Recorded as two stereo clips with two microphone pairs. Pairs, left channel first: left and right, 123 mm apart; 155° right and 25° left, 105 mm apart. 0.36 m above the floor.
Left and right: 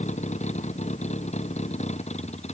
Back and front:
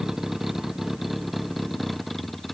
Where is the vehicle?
110° left; by 2.5 s 115° left.